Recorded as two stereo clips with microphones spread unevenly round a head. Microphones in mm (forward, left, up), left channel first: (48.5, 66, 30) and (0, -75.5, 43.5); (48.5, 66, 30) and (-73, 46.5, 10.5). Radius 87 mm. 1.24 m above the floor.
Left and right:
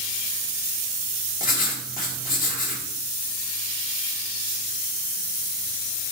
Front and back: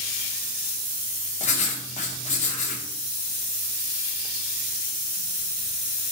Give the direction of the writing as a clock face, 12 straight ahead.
11 o'clock.